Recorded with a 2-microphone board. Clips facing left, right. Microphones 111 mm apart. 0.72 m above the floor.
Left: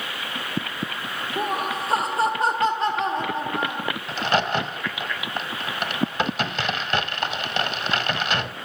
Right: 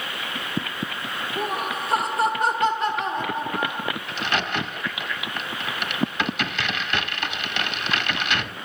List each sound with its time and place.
1.4 s laughter: 30° left (ahead or behind), 0.9 m
4.1 s a crack: 40° left (ahead or behind), 1.4 m